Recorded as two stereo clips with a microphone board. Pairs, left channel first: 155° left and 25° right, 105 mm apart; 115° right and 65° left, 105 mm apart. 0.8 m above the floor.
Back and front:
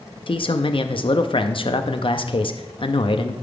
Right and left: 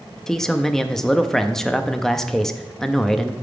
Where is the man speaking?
160° left, 0.6 m.